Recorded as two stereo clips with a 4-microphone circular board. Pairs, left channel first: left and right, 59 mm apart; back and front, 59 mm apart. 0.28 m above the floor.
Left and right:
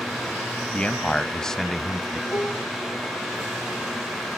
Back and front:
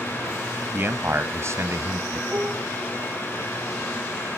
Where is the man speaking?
30° left, 1.4 m; by 2.2 s straight ahead, 2 m.